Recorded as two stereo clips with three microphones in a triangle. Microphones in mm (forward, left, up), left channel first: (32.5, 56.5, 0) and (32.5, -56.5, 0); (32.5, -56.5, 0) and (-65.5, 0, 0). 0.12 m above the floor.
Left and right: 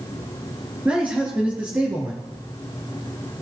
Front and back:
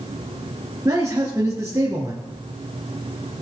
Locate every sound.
0.8 s a man speaking: 160° right, 2 m